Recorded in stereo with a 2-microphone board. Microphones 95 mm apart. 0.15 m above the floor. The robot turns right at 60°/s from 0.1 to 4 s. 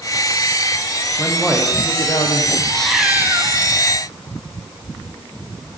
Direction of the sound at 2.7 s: 170° left.